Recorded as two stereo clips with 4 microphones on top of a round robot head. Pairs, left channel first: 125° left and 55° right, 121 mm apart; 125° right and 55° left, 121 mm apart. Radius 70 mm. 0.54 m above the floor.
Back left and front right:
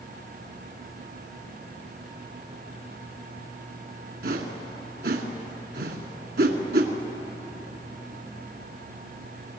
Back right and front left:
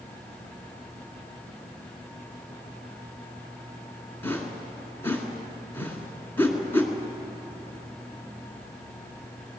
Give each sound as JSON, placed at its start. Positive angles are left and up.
{"t": 4.2, "sound": "a whoosh", "azimuth_deg": -50, "distance_m": 2.0}